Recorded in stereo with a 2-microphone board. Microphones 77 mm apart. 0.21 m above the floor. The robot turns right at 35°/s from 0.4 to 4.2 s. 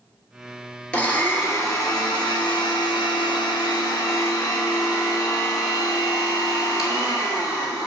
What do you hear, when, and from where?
0.9 s a blender: 15° left, 1.0 m; by 7.9 s 130° left, 1.0 m